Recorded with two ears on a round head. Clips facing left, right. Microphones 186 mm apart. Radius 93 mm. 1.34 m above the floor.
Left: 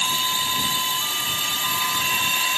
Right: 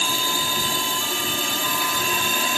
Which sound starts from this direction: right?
A drone, at 0.0 s.